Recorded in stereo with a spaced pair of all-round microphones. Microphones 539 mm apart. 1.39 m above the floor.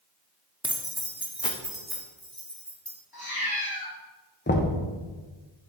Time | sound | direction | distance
0.6 | keys jangling | 10° right (ahead or behind) | 0.6 m
3.1 | a cat meowing | 40° left (ahead or behind) | 1.8 m
4.5 | knocking | 20° left (ahead or behind) | 0.7 m